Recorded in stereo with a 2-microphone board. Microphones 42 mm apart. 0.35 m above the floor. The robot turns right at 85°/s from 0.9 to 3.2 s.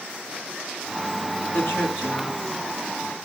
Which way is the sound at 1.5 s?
55° left.